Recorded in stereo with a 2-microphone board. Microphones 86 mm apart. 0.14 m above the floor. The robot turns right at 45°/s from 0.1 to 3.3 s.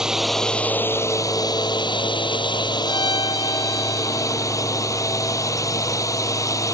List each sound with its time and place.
0.0 s a drone: 10° right; by 6.8 s 135° left
2.8 s a violin: 75° left (ahead or behind); by 4.5 s 70° left (ahead or behind)